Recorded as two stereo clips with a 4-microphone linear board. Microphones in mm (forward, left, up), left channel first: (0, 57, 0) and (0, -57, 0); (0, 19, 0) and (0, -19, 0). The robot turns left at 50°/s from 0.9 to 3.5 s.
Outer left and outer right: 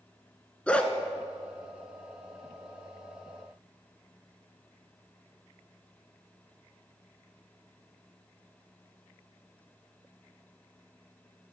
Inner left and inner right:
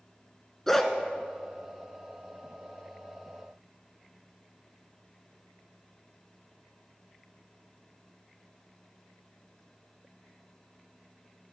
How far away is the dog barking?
About 0.9 m.